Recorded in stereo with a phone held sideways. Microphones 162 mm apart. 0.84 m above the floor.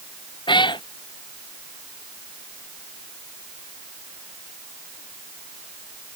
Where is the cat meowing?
30° left (ahead or behind).